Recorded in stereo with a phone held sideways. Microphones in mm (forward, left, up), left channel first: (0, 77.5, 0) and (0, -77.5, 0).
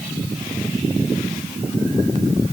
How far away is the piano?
No piano in this recording.